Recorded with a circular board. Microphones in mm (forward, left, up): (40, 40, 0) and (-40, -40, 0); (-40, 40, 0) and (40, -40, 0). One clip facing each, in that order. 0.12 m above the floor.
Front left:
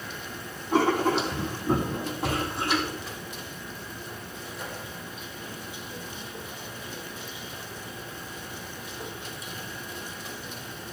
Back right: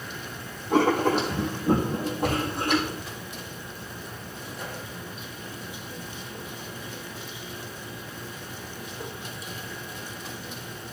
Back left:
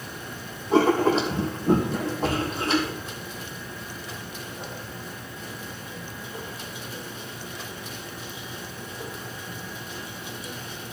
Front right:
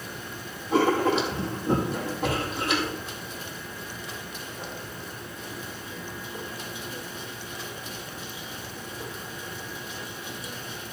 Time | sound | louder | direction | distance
0.7 | writing | back right 2 dB, back left 3 dB | 170° right | 4.5 m